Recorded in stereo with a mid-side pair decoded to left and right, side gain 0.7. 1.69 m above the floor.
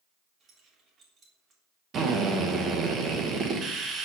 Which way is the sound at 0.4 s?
40° right.